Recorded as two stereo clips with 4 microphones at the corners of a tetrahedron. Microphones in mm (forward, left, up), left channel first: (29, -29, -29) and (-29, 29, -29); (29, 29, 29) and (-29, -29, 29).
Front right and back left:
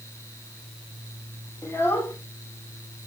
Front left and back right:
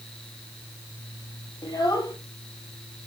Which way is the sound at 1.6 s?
15° left.